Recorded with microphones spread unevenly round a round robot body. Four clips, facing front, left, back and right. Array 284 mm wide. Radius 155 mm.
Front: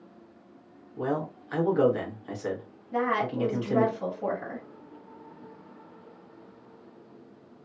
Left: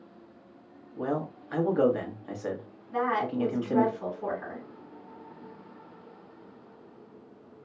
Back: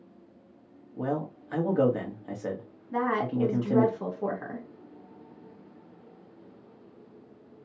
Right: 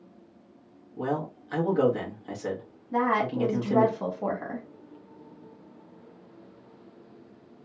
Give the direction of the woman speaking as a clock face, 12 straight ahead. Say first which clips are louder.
Right 3 dB, even; 4 o'clock.